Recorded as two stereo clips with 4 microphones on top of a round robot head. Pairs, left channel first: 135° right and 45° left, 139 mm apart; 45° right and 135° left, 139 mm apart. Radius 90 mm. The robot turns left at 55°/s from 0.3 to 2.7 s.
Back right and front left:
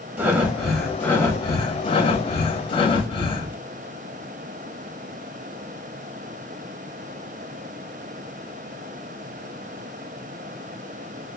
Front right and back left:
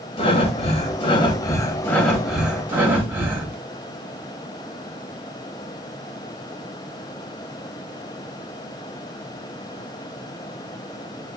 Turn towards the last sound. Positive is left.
turn(degrees=-155)